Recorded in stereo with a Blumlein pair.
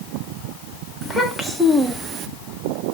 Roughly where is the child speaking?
Ahead.